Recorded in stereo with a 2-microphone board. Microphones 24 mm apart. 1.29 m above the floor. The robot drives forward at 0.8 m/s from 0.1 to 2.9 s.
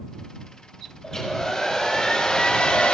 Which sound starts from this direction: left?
A hair dryer, at 1.0 s.